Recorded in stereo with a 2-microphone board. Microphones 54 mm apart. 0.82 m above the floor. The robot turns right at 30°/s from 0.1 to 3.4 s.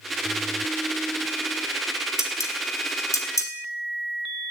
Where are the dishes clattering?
75° left (ahead or behind), 3 m; by 3.5 s 70° left (ahead or behind), 3 m.